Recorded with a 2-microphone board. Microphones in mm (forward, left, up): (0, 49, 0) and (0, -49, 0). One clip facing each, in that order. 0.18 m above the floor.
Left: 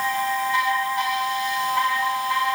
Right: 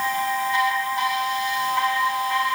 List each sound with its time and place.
Only background noise.